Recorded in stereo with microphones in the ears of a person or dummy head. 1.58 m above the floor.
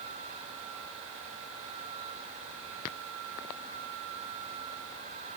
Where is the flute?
No flute in this recording.